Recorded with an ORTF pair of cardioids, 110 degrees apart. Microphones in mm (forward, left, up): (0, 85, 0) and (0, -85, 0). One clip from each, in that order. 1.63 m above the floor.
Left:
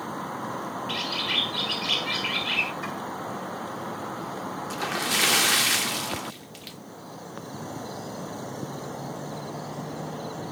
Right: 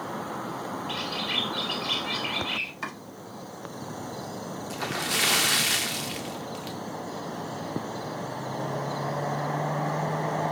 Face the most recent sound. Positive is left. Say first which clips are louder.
# left 2 dB
turn(degrees=5)